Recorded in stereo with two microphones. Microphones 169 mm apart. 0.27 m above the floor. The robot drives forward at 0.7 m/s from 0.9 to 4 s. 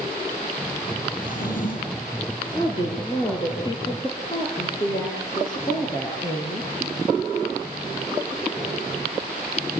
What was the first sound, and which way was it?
A drawer, 55° left (ahead or behind).